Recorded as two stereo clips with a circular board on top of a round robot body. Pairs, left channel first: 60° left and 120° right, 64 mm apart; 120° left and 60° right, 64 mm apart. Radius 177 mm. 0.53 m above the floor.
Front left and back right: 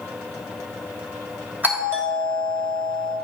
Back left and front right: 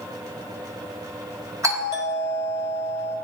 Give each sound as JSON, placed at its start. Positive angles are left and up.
{"t": 1.6, "sound": "a doorbell", "azimuth_deg": -65, "distance_m": 3.0}